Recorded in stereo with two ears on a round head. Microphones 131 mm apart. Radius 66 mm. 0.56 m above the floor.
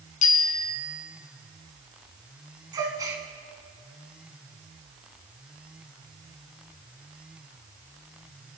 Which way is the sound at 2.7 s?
25° right (ahead or behind).